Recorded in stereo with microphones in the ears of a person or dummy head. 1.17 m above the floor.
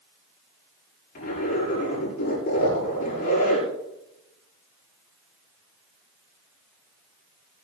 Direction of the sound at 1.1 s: 60° left (ahead or behind).